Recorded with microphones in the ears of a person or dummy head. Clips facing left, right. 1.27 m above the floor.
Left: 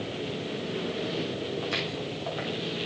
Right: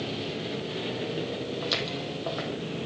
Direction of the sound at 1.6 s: 50° right (ahead or behind).